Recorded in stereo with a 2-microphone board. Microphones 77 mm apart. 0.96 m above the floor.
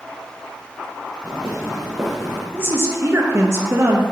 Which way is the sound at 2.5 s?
30° right (ahead or behind).